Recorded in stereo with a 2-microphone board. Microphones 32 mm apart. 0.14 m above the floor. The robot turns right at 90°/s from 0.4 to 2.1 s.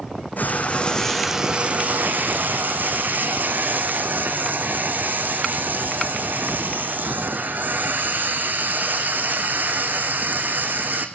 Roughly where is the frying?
Left.